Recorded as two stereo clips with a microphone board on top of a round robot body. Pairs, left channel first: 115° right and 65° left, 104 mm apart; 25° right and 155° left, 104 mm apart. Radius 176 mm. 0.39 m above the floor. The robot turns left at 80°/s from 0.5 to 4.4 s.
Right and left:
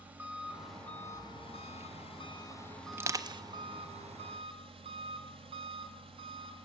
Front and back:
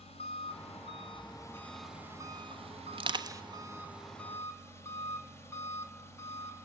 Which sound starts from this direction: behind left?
Crushing, at 2.9 s.